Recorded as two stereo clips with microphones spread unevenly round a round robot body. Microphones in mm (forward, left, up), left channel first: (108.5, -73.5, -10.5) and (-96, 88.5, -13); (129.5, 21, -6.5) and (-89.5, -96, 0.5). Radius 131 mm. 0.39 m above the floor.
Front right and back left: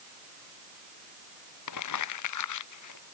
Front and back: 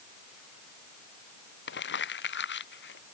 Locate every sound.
1.7 s crumpling: 15° right